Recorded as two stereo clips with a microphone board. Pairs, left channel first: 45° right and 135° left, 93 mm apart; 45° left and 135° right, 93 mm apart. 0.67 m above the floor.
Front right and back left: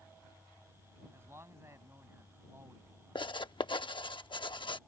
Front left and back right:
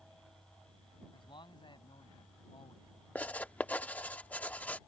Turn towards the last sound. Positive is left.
turn(degrees=-25)